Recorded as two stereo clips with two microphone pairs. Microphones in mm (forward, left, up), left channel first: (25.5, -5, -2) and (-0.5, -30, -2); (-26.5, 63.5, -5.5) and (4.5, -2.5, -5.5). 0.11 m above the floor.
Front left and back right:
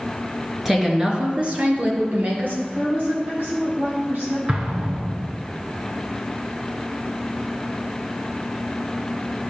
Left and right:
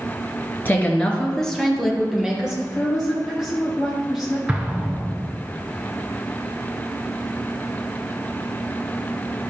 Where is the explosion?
125° right, 1.3 m.